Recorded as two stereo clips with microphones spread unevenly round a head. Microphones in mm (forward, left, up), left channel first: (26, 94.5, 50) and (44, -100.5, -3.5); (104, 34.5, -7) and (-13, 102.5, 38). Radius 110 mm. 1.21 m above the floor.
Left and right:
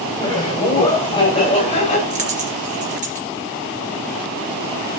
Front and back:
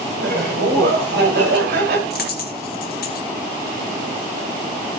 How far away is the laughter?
About 8.5 m.